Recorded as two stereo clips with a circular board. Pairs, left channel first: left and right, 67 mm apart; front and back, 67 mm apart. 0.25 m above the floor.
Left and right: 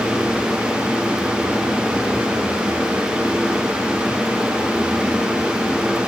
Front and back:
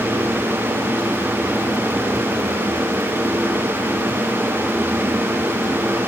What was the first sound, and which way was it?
Only background noise.